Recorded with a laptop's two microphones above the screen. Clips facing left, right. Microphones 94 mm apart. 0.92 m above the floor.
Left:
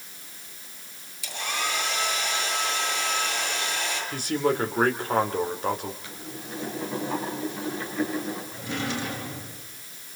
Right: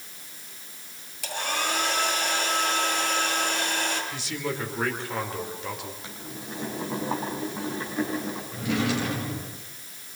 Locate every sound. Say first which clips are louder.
1.2 s a hair dryer: right 2 dB; 55° right (ahead or behind), 9.5 m
4.1 s a man speaking: left 7 dB; 45° left (ahead or behind), 3 m
6.0 s boiling: even; 25° right (ahead or behind), 5.5 m
8.5 s a drawer: right 8 dB; 75° right (ahead or behind), 6.5 m